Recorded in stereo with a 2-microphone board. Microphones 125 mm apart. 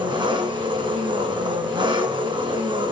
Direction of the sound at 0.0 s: 40° right (ahead or behind).